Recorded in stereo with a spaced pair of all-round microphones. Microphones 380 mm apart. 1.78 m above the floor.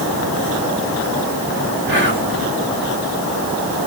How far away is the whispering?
About 1.7 m.